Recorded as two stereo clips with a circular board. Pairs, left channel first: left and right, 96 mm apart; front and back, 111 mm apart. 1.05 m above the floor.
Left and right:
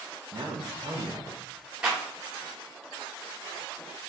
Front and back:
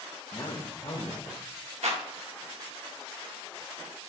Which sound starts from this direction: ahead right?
A man speaking, at 0.3 s.